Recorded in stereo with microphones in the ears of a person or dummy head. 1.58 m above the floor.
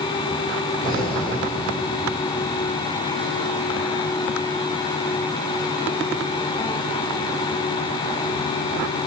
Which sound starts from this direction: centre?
Breathing, at 0.8 s.